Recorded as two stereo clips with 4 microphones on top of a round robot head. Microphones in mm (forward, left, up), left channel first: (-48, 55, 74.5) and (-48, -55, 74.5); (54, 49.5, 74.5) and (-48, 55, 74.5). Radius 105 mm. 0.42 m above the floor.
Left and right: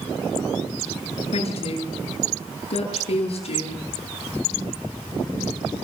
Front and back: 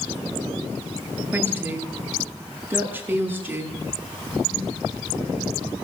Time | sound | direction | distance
1.3 | a woman speaking | 105° left | 10 m